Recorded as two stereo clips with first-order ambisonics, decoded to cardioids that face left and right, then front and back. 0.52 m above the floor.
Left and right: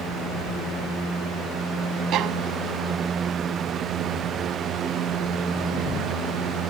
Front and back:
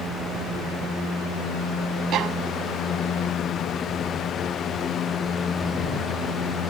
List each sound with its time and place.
2.1 s a violin: 135° right